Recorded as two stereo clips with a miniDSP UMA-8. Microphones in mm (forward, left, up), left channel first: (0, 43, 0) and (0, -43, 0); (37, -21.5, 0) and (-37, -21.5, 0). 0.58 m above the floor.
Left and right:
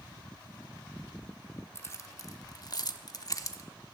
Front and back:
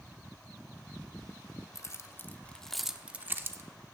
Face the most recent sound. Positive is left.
turn(degrees=135)